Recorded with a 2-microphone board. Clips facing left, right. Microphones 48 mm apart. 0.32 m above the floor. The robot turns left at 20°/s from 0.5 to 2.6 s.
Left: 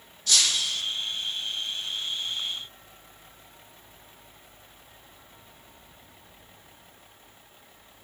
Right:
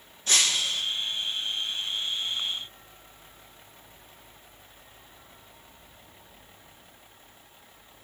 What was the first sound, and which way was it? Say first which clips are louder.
Breaking glass: even; 30° right (ahead or behind).